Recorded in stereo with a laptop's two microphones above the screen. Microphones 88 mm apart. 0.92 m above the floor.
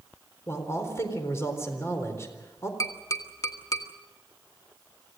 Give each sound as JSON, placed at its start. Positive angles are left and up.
{"t": 0.5, "sound": "a man speaking", "side_deg": 30, "distance_m": 4.0}
{"t": 2.8, "sound": "tapping", "side_deg": 40, "distance_m": 1.3}